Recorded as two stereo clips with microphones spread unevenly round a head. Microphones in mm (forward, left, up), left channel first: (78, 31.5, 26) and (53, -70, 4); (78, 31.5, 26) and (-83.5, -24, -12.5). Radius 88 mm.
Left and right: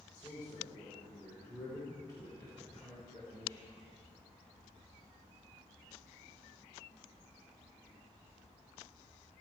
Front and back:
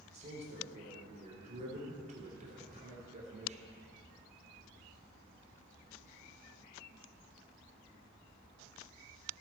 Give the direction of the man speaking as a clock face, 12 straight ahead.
7 o'clock.